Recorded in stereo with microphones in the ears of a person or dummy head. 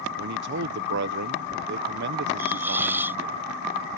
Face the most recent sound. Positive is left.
turn(degrees=-10)  # may be behind; listen again after turning